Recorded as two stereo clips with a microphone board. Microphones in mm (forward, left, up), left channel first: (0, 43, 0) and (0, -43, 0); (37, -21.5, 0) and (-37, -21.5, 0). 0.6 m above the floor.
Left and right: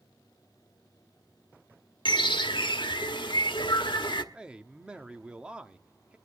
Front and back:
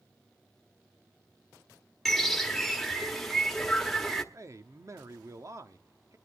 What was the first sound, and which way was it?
A bird, 90° left.